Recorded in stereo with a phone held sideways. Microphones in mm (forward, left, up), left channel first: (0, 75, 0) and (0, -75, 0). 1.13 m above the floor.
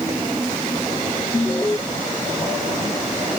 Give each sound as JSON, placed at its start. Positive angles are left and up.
{"t": 1.3, "sound": "an alarm", "side_deg": 15}